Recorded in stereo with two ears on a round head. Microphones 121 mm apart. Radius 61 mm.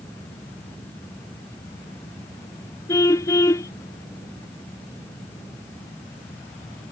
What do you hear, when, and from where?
2.9 s a car horn: 20° left (ahead or behind)